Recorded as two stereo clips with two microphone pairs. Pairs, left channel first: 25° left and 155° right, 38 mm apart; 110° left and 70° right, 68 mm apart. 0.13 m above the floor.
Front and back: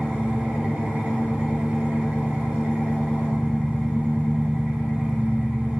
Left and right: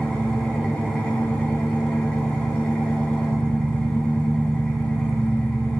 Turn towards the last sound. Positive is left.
turn(degrees=180)